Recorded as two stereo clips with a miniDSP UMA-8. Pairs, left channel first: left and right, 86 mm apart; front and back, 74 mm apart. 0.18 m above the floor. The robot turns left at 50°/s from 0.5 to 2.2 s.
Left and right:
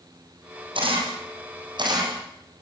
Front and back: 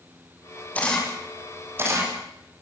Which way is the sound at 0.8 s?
70° right.